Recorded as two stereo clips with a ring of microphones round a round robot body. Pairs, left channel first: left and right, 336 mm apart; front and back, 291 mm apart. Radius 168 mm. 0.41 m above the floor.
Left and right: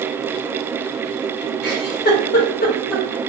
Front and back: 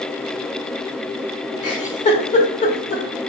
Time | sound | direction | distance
1.6 | a giggle | 45° left | 1.1 m